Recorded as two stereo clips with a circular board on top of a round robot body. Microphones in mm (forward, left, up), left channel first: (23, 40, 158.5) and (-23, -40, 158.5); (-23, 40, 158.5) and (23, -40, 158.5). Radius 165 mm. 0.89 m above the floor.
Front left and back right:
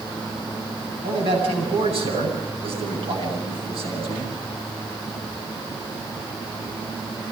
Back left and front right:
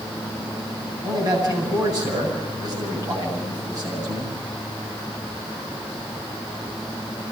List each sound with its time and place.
1.0 s a man speaking: 110° right, 10 m